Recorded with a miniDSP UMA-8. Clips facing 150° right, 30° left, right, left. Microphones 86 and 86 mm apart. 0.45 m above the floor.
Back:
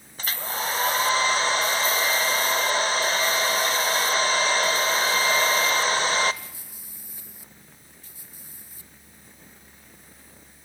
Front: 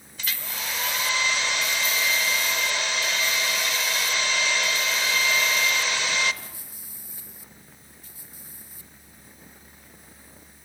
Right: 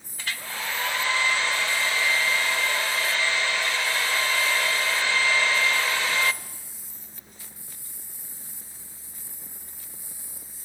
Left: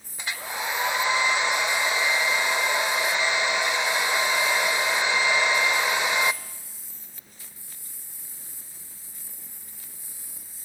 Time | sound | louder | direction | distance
0.2 | a hair dryer | back 5 dB, left 2 dB | 160° left | 0.6 m